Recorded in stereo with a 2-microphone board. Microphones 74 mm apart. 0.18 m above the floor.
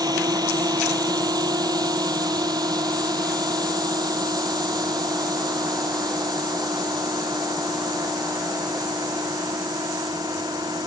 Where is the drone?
75° right (ahead or behind); by 10.9 s 80° right.